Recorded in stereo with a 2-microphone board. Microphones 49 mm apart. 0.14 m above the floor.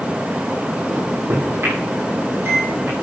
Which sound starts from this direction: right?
A microwave, at 0.9 s.